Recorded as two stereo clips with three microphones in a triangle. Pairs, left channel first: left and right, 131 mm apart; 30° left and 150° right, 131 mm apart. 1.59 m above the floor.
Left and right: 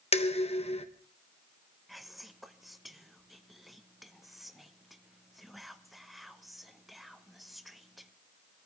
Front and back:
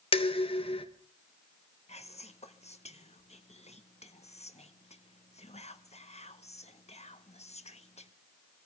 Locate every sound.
0.1 s dishes clattering: 65° left, 1.2 m
1.9 s whispering: straight ahead, 1.2 m